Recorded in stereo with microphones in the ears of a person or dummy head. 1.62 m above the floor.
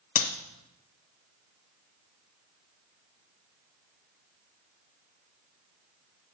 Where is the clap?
35° left (ahead or behind), 1.0 m.